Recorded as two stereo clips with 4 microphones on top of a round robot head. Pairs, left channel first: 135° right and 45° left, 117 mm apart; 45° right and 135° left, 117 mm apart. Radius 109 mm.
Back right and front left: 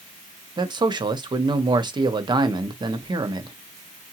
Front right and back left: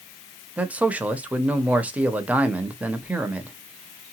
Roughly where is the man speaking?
Ahead left.